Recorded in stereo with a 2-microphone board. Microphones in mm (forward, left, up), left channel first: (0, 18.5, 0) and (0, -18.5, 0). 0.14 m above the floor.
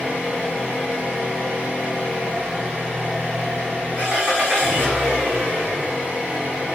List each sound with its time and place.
0.0 s an engine running: 25° right (ahead or behind), 3.5 m